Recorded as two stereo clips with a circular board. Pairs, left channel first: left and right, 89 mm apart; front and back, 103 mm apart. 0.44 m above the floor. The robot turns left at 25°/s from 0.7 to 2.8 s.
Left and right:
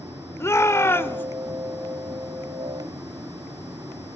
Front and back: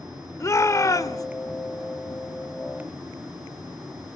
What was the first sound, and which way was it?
A shout, 45° left.